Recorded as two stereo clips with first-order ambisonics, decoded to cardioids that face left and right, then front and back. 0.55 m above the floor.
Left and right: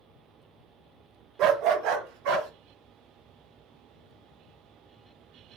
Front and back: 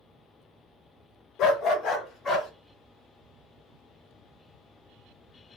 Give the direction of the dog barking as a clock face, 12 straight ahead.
1 o'clock.